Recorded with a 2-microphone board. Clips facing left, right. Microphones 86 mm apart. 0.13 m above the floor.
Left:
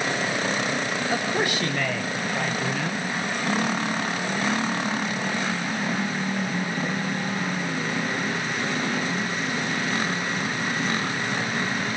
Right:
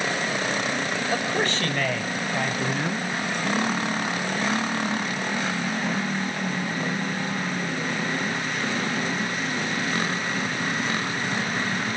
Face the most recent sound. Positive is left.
turn(degrees=-10)  # may be behind; listen again after turning